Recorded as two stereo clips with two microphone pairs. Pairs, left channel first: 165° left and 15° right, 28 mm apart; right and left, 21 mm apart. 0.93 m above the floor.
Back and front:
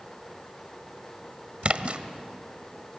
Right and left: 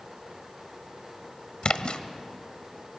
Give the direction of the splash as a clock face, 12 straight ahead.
2 o'clock.